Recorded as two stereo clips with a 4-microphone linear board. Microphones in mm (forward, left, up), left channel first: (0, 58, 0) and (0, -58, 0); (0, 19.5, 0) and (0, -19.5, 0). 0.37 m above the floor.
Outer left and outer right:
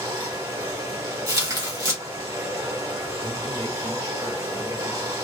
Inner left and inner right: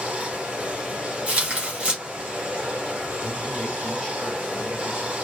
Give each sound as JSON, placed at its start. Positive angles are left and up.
{"t": 0.0, "sound": "running water", "side_deg": -30, "distance_m": 2.0}
{"t": 1.3, "sound": "tearing paper", "side_deg": -30, "distance_m": 2.5}
{"t": 3.2, "sound": "a man speaking", "side_deg": 25, "distance_m": 1.4}